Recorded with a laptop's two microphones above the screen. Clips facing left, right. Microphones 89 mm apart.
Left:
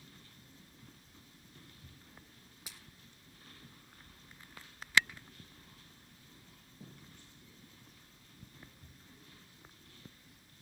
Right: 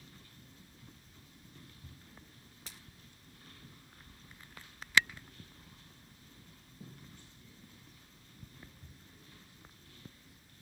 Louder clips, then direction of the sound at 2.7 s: Even; 10° left (ahead or behind).